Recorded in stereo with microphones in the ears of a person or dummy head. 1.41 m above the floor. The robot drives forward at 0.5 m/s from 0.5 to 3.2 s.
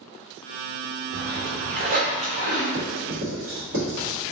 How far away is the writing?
About 1.1 m.